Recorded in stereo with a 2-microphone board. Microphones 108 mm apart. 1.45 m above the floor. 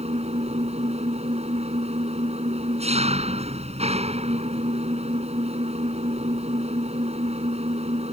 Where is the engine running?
80° right.